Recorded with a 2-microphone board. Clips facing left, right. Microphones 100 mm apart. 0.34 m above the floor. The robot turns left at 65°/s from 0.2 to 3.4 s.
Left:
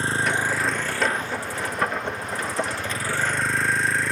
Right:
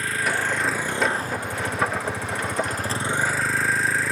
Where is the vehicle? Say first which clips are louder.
Left 1 dB; 30° left; by 4.1 s straight behind.